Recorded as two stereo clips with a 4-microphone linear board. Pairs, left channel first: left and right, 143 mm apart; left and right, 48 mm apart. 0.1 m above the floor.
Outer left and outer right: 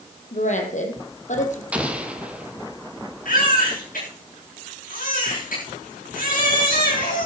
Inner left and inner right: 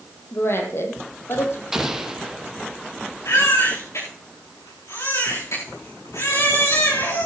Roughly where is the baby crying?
Left.